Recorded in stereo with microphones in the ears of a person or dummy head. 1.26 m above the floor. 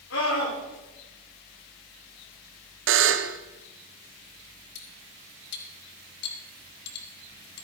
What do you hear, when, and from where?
0.1 s a scream: 85° left, 8 m
2.9 s a buzzer: 60° right (ahead or behind), 0.8 m
4.8 s cutlery clinking: 65° left (ahead or behind), 2.5 m